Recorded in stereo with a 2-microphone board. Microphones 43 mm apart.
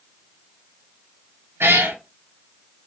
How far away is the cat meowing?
About 1.5 m.